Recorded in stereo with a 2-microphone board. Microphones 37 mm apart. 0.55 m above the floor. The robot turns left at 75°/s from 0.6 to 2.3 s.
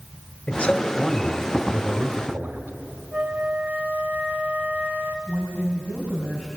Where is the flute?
45° right (ahead or behind), 1.6 m.